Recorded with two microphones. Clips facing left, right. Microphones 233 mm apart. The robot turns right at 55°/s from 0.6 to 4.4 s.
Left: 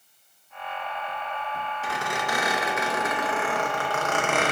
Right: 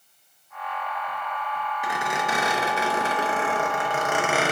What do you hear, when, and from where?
1.8 s a squeak: 15° right (ahead or behind), 0.6 m; by 4.5 s 5° right (ahead or behind), 0.6 m